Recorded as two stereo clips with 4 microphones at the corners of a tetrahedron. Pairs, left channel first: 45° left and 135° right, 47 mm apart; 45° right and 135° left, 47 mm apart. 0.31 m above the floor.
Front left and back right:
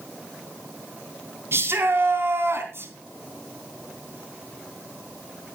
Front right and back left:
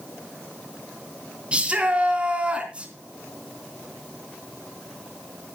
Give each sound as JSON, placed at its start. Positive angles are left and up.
{"t": 1.5, "sound": "a shout", "azimuth_deg": -160, "distance_m": 3.5}